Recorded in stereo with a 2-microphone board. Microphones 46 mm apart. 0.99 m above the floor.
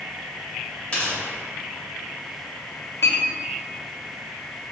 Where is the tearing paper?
20° left (ahead or behind), 1.9 m.